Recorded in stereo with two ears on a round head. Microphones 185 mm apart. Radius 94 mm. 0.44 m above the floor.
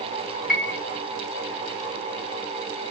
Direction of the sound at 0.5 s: 5° right (ahead or behind).